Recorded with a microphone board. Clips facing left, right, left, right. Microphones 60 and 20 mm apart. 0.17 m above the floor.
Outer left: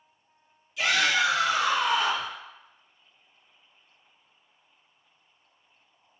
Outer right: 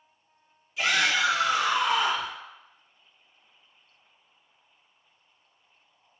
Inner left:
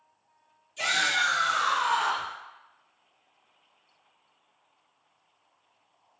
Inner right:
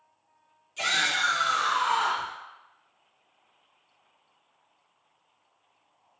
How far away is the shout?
About 1.9 m.